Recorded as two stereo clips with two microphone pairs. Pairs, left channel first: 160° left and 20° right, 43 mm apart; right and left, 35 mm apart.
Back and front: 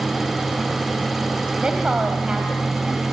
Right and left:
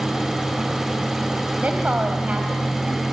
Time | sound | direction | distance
1.6 | a woman speaking | 50° left | 2.5 m